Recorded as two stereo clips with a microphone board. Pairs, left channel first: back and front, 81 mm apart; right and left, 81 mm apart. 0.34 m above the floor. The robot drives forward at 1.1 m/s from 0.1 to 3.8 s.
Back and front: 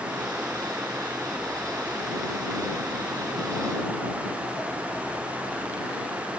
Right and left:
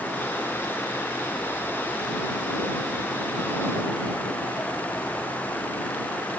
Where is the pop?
No pop in this recording.